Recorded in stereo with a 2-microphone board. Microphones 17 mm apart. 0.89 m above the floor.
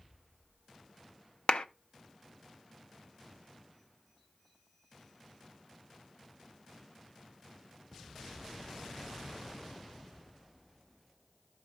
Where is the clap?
75° left (ahead or behind), 0.6 m.